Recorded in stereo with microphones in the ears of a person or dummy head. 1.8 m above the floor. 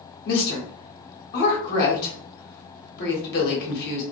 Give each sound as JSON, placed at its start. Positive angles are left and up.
{"t": 0.2, "sound": "a woman speaking", "side_deg": 55, "distance_m": 1.2}